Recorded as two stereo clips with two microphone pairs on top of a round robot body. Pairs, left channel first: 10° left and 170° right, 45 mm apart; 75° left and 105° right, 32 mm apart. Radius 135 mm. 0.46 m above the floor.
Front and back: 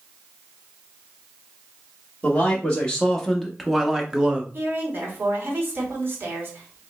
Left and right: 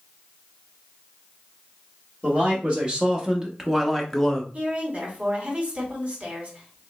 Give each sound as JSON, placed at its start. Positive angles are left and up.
{"t": 2.2, "sound": "a man speaking", "azimuth_deg": -50, "distance_m": 1.2}
{"t": 4.5, "sound": "a woman speaking", "azimuth_deg": -145, "distance_m": 1.8}